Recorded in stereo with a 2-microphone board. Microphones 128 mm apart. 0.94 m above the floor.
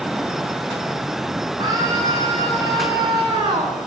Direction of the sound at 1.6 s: 35° right (ahead or behind).